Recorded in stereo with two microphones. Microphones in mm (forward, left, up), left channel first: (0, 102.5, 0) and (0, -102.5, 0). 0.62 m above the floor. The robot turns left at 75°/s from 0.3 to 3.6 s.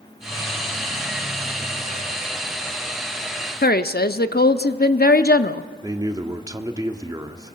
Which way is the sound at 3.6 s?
50° left (ahead or behind).